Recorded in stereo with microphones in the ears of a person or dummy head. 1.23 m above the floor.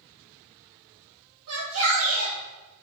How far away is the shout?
About 1.7 m.